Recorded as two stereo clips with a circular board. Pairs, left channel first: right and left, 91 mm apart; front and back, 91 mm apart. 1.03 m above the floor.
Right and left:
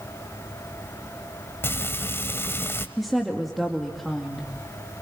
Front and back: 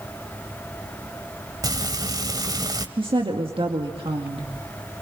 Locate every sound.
1.6 s frying: 150° right, 1.2 m
3.0 s a woman speaking: straight behind, 2 m